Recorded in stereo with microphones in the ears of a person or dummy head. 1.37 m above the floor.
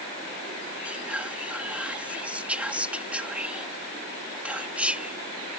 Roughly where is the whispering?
Centre.